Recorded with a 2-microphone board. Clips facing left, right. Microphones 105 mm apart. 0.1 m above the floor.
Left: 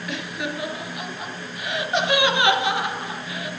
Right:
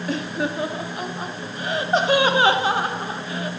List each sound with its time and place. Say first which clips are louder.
0.1 s laughter: right 5 dB; 35° right (ahead or behind), 1.4 m